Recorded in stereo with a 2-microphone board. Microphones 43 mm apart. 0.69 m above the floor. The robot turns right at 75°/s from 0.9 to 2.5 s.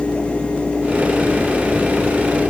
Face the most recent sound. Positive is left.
No sound to turn to.